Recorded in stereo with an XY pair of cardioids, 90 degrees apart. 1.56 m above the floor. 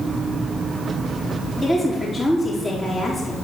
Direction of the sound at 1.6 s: 10° left.